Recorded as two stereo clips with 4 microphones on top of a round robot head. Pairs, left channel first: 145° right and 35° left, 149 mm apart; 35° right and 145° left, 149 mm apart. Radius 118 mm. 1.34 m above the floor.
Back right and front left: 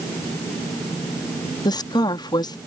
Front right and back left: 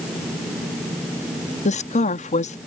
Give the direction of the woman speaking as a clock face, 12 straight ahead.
3 o'clock.